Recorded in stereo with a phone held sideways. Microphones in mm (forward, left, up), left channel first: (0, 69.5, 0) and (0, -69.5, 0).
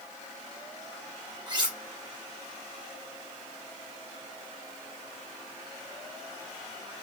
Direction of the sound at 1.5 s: 35° right (ahead or behind).